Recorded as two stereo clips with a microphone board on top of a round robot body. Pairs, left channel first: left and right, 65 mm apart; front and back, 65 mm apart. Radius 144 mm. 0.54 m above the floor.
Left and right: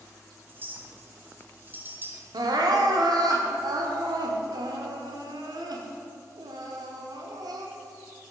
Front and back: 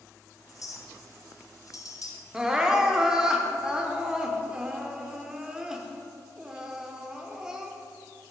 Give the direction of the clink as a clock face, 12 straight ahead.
1 o'clock.